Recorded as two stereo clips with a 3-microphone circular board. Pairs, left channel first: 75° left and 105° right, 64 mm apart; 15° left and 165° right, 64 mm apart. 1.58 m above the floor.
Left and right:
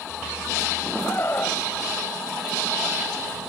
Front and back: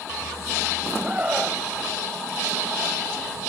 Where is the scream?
130° left.